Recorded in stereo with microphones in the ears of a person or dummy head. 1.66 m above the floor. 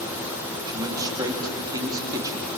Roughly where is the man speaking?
Right.